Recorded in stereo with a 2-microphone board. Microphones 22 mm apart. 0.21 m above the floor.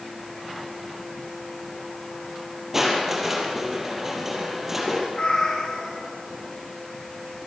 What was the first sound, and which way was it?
Crushing, 10° right (ahead or behind).